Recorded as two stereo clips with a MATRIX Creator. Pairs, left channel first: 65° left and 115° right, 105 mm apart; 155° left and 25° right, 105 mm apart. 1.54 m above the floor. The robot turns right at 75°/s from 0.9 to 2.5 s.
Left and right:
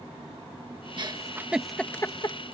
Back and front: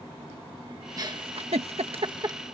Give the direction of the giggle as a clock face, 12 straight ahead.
2 o'clock.